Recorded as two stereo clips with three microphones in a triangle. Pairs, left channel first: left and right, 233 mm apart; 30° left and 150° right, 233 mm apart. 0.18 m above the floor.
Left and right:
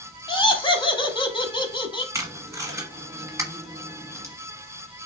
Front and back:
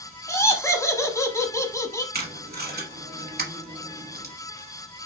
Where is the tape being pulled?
165° right, 1.3 m.